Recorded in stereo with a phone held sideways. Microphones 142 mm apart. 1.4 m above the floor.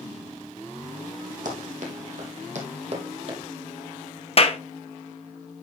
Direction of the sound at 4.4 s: 45° left (ahead or behind).